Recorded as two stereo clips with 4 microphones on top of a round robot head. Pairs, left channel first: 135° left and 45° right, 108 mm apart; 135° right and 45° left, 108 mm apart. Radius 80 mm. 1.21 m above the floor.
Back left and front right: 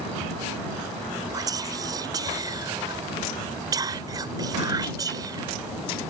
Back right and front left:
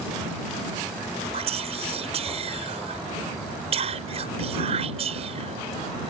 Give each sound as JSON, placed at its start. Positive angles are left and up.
{"t": 1.3, "sound": "whispering", "azimuth_deg": 10}